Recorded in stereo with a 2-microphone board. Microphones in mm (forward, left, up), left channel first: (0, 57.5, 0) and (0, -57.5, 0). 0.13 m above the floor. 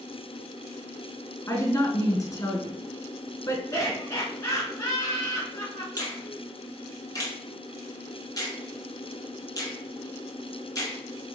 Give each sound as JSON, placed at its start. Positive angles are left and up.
{"t": 1.5, "sound": "a woman speaking", "side_deg": 30, "distance_m": 1.1}
{"t": 3.7, "sound": "laughter", "side_deg": 30, "distance_m": 1.3}
{"t": 6.0, "sound": "a finger snap", "side_deg": 30, "distance_m": 1.4}